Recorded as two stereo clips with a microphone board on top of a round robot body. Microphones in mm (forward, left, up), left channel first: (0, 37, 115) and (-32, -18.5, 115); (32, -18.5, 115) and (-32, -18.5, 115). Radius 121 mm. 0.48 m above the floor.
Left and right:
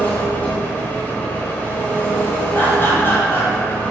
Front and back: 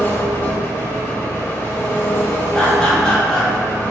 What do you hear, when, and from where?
0.0 s an engine running: 15° left, 0.8 m
2.5 s laughter: 70° left, 1.2 m